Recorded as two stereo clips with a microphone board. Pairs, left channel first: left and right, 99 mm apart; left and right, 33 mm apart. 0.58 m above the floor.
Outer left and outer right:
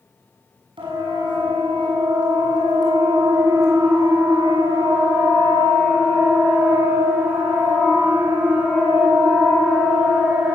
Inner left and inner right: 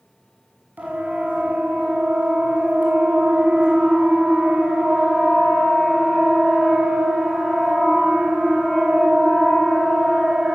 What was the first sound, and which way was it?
A siren, 55° right (ahead or behind).